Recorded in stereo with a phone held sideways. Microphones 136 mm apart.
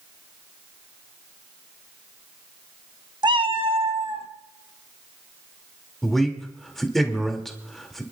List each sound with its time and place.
3.2 s a cat meowing: 35° right (ahead or behind), 0.6 m; by 4.3 s 45° right (ahead or behind), 1.9 m
6.0 s a man speaking: centre (ahead or behind), 2.5 m